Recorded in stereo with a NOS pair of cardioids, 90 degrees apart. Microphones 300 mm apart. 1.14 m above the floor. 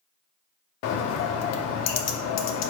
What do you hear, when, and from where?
0.8 s a bird: 60° left, 0.5 m